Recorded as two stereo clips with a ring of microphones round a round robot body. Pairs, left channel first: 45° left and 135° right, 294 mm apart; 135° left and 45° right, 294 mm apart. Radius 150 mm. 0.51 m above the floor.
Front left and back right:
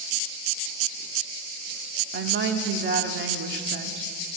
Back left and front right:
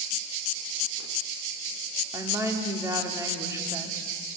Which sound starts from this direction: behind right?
A woman speaking, at 2.1 s.